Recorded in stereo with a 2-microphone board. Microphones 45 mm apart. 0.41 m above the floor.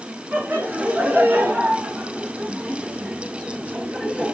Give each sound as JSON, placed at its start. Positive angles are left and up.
{"t": 0.3, "sound": "laughter", "side_deg": -45, "distance_m": 4.0}